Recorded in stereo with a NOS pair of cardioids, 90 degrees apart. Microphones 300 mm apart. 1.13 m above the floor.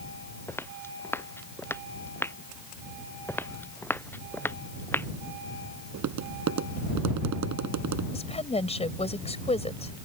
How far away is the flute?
I don't hear a flute.